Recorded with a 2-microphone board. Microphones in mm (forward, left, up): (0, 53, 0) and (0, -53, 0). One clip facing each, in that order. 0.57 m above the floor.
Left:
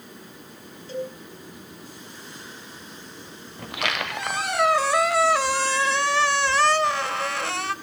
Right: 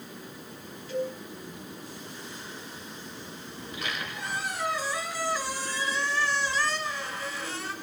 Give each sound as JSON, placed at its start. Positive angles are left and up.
{"t": 0.9, "sound": "a cowbell", "side_deg": 30, "distance_m": 3.0}
{"t": 3.6, "sound": "a squeak", "side_deg": 70, "distance_m": 0.6}